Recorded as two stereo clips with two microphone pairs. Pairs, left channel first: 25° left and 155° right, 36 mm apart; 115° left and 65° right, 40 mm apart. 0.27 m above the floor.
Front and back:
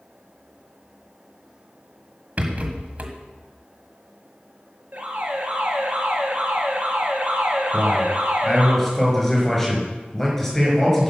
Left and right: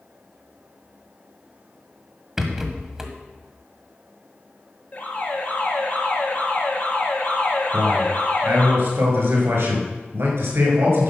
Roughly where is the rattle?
Behind right.